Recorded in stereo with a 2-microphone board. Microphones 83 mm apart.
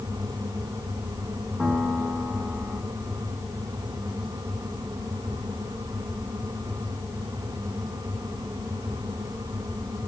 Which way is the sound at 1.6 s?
10° right (ahead or behind).